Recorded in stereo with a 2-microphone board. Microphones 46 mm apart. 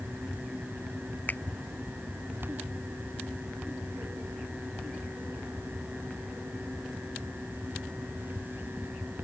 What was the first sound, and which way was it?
A finger snap, 40° left (ahead or behind).